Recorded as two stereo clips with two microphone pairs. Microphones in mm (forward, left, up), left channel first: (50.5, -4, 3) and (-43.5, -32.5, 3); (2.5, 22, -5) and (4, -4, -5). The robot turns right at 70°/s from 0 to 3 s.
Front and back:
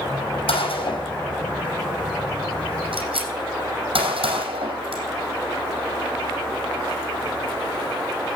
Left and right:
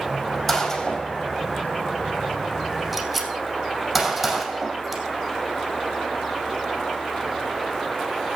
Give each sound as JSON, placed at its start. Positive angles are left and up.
{"t": 0.5, "sound": "a gunshot", "azimuth_deg": 15, "distance_m": 5.0}